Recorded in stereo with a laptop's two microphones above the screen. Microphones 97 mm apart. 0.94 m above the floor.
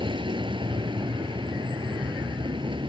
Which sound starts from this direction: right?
A vehicle, at 0.0 s.